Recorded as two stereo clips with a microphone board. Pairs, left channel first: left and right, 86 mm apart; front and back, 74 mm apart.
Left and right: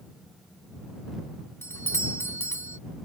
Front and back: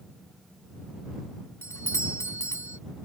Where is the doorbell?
35° left.